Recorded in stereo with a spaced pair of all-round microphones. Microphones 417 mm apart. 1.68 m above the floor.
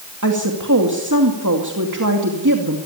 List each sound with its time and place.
0.2 s a woman speaking: 45° right (ahead or behind), 2.5 m